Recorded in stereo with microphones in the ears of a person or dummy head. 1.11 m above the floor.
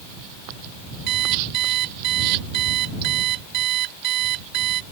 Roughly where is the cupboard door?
No cupboard door in this recording.